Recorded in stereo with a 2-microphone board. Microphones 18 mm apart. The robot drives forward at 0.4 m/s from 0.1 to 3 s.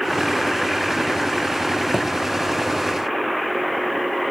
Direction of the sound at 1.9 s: 35° right (ahead or behind).